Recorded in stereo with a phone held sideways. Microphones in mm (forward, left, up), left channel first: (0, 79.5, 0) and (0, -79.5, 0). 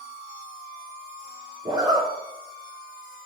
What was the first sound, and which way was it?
A zipper, 25° right (ahead or behind).